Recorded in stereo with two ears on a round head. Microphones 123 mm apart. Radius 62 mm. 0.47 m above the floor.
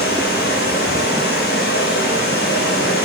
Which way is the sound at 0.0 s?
90° left.